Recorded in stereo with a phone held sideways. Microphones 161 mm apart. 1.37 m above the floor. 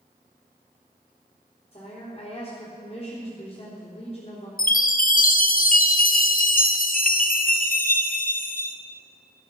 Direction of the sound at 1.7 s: 35° left (ahead or behind).